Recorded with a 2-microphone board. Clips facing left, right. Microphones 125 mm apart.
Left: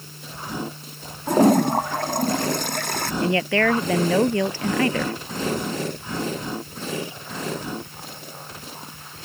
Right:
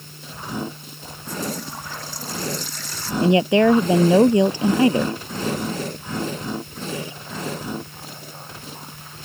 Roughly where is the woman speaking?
Centre.